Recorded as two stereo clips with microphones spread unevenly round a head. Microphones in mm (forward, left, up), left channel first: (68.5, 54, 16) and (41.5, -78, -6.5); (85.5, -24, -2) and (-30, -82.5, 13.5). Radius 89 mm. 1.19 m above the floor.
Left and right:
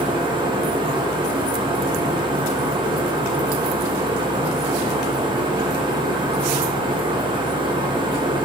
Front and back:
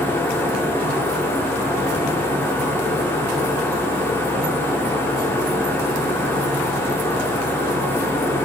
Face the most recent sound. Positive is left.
turn(degrees=-45)